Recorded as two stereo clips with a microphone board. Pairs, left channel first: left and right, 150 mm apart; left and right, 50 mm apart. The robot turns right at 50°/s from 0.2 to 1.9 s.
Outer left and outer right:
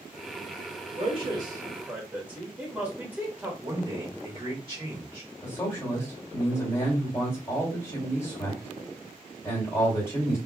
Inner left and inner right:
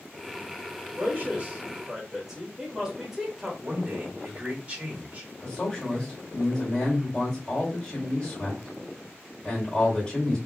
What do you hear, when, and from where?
1.0 s a man speaking: 40° right (ahead or behind), 1.1 m; by 3.5 s 10° right (ahead or behind), 1.1 m
3.6 s a man speaking: 35° right (ahead or behind), 1.3 m
5.4 s a man speaking: 20° left (ahead or behind), 1.8 m